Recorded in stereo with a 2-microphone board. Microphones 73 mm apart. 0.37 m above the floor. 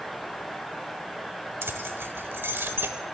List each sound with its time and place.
1.6 s keys jangling: 30° right (ahead or behind), 0.9 m